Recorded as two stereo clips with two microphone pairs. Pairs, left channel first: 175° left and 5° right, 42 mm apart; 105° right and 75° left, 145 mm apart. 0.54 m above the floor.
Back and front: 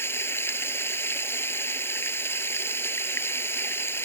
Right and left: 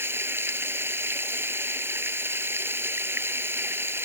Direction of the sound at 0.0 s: 150° left.